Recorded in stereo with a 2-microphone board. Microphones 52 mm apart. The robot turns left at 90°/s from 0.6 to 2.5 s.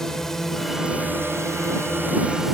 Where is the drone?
10° left (ahead or behind); by 2.5 s 5° right (ahead or behind).